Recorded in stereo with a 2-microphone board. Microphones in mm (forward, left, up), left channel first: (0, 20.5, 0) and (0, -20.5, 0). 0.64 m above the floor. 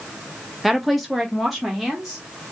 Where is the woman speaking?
Centre (ahead or behind), 0.5 m; by 2.5 s 5° left (ahead or behind), 1.6 m.